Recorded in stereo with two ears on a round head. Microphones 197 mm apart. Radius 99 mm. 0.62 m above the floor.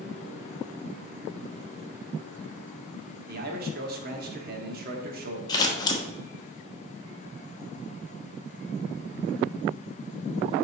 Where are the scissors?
20° left (ahead or behind), 1.1 m.